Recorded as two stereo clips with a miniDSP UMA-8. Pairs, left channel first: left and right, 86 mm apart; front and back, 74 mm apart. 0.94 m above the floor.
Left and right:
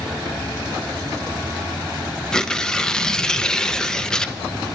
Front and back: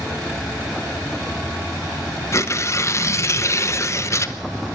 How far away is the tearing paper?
About 0.9 m.